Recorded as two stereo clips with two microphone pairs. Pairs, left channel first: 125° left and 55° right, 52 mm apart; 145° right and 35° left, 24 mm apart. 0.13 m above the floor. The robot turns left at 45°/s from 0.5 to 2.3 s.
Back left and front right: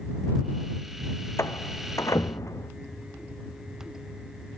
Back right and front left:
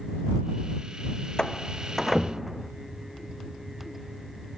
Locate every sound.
1.4 s a door slam: 155° left; by 2.7 s 115° left